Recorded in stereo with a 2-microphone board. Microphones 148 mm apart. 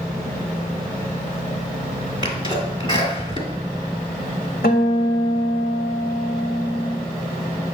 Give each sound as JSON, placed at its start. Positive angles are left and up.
{"t": 2.2, "sound": "a sneeze", "side_deg": 30, "distance_m": 1.8}
{"t": 4.6, "sound": "a guitar", "side_deg": 70, "distance_m": 1.1}